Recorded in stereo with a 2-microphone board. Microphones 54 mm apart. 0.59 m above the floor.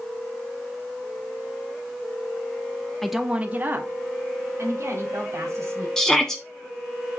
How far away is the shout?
About 0.9 m.